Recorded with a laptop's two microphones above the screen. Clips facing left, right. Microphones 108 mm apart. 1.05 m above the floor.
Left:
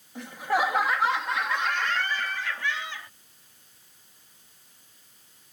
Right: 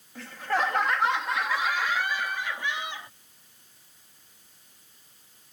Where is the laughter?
20° left (ahead or behind); by 3.1 s 25° right (ahead or behind).